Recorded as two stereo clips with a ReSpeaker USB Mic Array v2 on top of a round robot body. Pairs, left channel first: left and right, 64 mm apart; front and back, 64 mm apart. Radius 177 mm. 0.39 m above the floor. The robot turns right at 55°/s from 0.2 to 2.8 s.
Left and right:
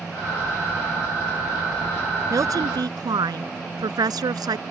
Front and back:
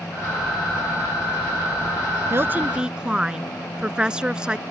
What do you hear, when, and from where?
2.3 s a woman speaking: 130° right; by 4.6 s 105° right